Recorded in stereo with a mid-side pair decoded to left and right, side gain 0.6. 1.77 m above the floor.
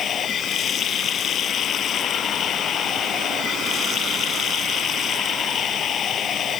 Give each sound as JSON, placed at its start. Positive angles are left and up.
{"t": 0.0, "sound": "running water", "azimuth_deg": 45}